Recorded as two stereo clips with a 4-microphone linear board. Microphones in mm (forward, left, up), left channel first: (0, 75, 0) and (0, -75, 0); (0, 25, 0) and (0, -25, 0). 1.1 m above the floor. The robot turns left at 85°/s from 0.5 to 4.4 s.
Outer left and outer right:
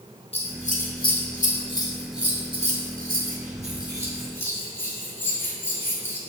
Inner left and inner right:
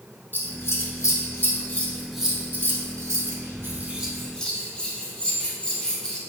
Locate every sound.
0.3 s scissors: 40° left (ahead or behind), 0.7 m; by 6.2 s 15° left (ahead or behind), 0.7 m